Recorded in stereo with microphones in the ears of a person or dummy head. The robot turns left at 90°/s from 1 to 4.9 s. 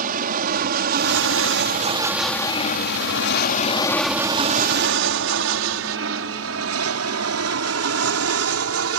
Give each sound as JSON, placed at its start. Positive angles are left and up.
{"t": 0.0, "sound": "an aircraft", "side_deg": -45}